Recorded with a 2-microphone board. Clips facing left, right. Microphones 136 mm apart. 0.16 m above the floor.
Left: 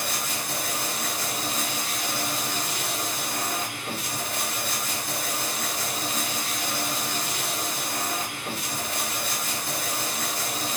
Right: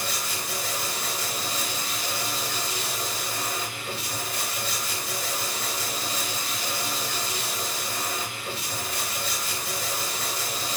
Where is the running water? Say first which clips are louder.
Left 1 dB; 45° left (ahead or behind), 4.5 m.